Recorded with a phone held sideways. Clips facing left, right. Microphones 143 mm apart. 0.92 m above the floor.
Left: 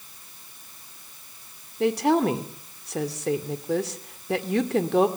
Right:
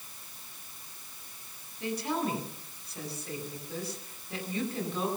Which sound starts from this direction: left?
A woman speaking, at 1.8 s.